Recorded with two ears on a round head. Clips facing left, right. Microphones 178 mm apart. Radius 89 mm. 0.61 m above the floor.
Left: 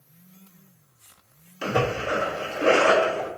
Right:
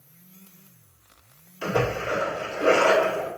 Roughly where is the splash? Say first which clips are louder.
Even; left.